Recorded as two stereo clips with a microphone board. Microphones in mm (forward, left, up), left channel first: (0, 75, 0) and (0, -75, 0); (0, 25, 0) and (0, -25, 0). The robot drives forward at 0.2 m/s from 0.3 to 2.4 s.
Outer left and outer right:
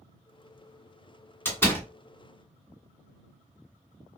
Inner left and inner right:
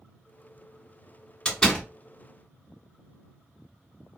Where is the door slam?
15° left (ahead or behind), 1.3 m.